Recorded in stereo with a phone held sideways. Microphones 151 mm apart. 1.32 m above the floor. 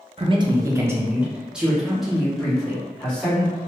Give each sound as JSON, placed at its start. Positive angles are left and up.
{"t": 0.2, "sound": "a man speaking", "side_deg": -40, "distance_m": 0.6}